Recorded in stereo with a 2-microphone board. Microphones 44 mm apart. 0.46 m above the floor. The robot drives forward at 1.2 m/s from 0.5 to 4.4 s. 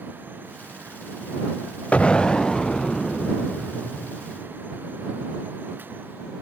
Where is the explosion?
30° left (ahead or behind), 0.5 m; by 4.4 s 5° left (ahead or behind), 3.5 m.